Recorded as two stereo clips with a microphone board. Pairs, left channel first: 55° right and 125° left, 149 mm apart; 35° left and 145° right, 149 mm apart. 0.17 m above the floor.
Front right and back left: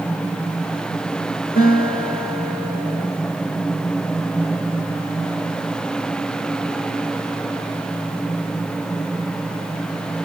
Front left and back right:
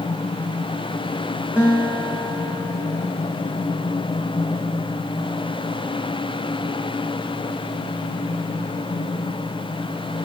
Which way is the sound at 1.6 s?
65° right.